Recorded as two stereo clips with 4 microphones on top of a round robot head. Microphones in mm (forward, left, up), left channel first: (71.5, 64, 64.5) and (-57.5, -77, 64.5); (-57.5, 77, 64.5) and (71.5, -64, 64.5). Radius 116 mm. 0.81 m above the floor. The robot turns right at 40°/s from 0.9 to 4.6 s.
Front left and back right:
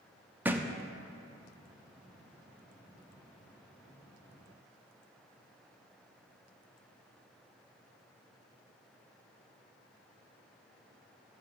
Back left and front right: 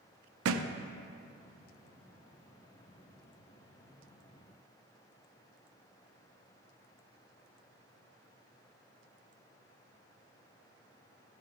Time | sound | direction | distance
0.5 | a thud | 50° right | 0.6 m